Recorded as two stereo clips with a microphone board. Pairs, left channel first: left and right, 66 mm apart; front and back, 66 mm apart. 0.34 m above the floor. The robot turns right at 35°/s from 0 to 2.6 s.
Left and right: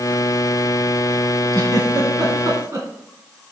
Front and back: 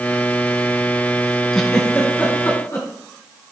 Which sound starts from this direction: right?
A giggle, at 1.5 s.